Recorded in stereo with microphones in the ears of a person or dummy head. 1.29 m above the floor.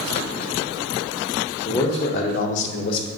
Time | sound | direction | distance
1.6 | a man speaking | 10° left (ahead or behind) | 0.8 m